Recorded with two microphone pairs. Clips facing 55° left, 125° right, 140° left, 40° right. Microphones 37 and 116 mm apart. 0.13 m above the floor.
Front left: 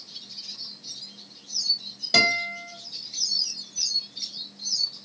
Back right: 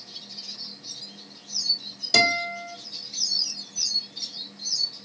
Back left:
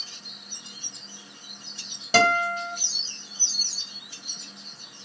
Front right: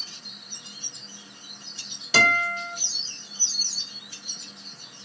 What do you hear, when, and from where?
2.1 s a guitar: 120° left, 1.8 m